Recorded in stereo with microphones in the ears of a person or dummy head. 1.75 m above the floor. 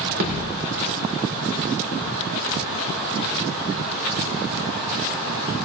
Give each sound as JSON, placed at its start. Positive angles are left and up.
{"t": 0.2, "sound": "a thud", "side_deg": -55, "distance_m": 1.8}